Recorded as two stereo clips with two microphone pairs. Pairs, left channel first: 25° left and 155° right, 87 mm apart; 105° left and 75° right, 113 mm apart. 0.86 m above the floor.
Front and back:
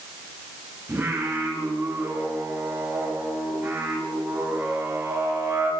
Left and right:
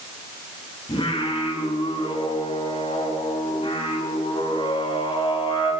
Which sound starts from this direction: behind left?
Singing, at 0.9 s.